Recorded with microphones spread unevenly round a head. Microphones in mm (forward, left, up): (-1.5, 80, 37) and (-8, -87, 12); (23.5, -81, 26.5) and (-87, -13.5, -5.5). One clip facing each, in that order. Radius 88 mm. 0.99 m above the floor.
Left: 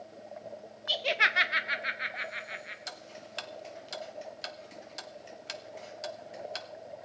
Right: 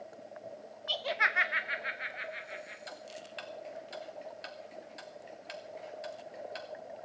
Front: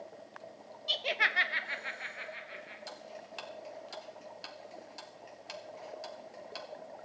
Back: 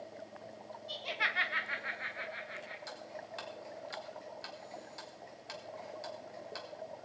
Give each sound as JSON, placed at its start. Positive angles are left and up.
{"t": 0.9, "sound": "laughter", "azimuth_deg": 10, "distance_m": 0.6}
{"t": 2.9, "sound": "ticking", "azimuth_deg": 55, "distance_m": 1.2}